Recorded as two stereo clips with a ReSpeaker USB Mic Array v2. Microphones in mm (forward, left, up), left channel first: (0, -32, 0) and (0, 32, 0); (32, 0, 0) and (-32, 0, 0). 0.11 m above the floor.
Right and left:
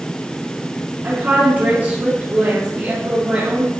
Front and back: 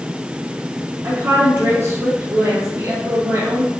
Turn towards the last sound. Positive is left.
turn(degrees=135)